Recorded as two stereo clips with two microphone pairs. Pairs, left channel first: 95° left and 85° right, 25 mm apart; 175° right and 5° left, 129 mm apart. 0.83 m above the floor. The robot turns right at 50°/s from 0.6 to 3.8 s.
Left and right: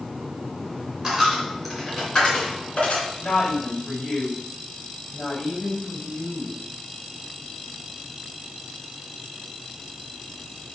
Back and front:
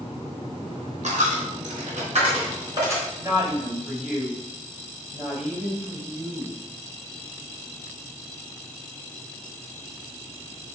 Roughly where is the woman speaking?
Ahead left.